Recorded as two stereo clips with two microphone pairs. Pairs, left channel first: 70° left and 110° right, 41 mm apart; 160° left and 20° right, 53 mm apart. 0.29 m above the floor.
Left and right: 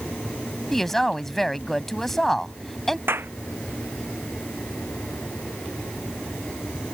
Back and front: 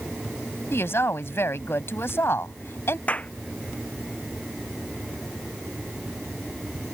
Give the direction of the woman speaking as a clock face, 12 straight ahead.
7 o'clock.